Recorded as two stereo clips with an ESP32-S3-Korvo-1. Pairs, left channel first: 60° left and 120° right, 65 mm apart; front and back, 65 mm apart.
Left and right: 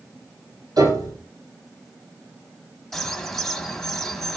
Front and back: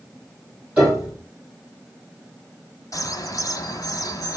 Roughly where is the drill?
I don't hear a drill.